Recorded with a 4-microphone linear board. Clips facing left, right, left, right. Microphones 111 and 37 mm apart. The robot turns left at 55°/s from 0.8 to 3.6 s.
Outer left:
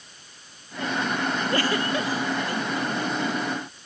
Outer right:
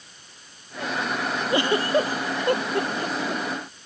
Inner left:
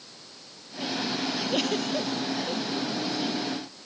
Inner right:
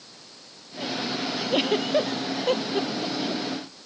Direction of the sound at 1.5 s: 15° right (ahead or behind).